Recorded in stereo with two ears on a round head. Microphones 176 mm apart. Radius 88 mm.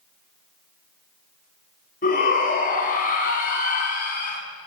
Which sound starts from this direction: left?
A shout, at 2.0 s.